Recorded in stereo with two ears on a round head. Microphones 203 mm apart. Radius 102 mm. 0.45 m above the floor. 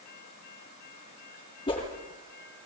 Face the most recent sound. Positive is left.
turn(degrees=20)  # may be behind; listen again after turning